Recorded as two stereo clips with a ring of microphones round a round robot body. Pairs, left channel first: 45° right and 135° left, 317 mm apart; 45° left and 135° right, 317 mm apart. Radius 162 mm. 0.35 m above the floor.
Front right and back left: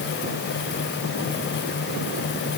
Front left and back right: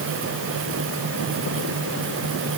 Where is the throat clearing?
I don't hear throat clearing.